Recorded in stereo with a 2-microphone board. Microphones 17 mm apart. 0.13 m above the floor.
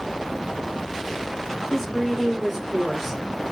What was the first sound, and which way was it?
A woman speaking, 5° left (ahead or behind).